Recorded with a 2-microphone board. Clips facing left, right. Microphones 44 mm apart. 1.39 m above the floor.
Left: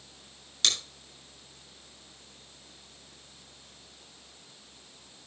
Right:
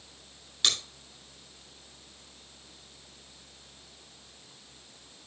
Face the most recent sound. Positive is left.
turn(degrees=-15)  # may be behind; listen again after turning